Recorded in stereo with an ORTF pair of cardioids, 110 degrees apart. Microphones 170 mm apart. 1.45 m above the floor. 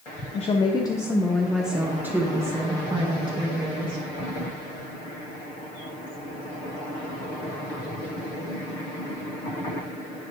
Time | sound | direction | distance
0.3 | a woman speaking | 40° left | 0.8 m